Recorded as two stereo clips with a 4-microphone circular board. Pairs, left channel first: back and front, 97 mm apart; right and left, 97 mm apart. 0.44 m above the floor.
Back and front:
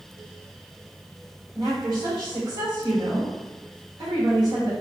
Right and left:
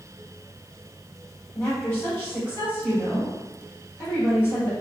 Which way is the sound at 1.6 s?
30° right.